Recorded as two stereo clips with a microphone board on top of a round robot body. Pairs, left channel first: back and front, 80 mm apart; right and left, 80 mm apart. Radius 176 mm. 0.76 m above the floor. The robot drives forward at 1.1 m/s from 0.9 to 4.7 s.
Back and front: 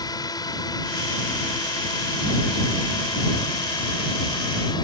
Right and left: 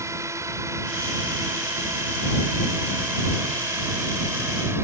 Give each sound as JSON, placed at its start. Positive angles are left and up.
{"t": 0.0, "sound": "a drone", "azimuth_deg": 145}